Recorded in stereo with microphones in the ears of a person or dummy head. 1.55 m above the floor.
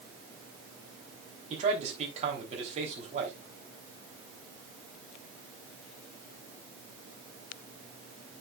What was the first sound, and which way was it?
A man speaking, 40° right (ahead or behind).